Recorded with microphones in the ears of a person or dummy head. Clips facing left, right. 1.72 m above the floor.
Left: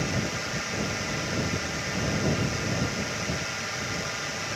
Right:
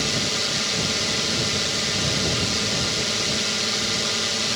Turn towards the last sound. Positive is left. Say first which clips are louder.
# right 3 dB
turn(degrees=-50)  # may be behind; listen again after turning